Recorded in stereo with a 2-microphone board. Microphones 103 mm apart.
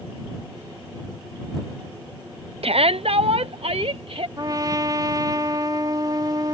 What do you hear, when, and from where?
2.6 s a shout: 70° right (ahead or behind); by 4.3 s 65° right (ahead or behind)
4.4 s a trumpet: 40° right (ahead or behind)